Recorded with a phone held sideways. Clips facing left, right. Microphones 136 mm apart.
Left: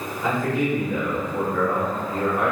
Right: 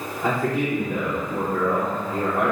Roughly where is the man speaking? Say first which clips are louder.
Even; right.